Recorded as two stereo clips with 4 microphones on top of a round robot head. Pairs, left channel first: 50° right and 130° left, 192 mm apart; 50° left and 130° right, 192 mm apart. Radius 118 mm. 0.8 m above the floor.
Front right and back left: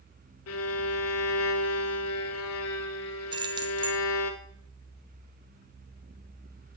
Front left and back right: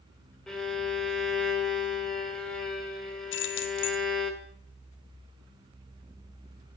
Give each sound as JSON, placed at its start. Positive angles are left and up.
{"t": 0.5, "sound": "a violin", "azimuth_deg": -40, "distance_m": 1.1}
{"t": 3.3, "sound": "keys jangling", "azimuth_deg": 65, "distance_m": 0.9}